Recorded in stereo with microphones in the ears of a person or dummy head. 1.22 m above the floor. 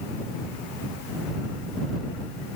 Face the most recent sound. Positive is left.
No sound to turn to.